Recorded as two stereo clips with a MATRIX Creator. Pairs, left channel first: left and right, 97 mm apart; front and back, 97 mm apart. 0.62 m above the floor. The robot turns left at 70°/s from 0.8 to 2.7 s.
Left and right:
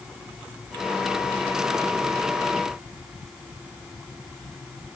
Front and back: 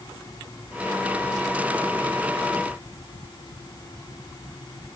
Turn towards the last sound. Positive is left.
No sound to turn to.